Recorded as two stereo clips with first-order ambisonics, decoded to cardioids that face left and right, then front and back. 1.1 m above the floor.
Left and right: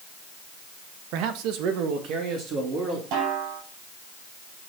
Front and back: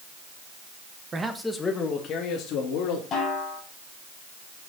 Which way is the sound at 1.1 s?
110° right.